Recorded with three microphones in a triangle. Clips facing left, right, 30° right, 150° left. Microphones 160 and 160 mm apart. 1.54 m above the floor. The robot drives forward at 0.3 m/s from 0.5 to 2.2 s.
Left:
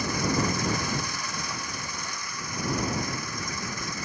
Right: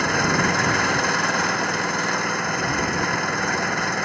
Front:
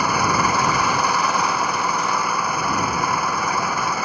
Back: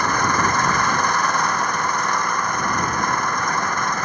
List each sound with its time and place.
0.0 s an engine running: 110° right